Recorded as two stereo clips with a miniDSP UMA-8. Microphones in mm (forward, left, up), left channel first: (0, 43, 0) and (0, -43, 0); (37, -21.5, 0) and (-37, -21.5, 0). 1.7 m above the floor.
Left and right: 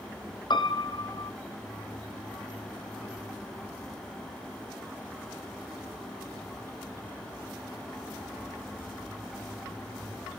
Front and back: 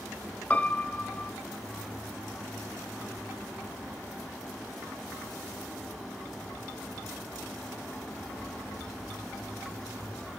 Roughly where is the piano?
Ahead left.